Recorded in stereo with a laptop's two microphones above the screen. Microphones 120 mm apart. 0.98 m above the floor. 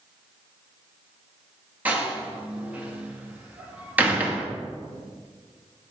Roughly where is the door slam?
Centre.